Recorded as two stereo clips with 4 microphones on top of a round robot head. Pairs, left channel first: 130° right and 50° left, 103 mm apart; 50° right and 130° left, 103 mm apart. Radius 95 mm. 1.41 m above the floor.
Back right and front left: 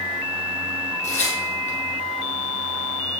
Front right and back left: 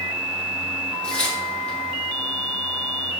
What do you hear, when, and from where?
1.0 s tearing paper: 130° right, 3.5 m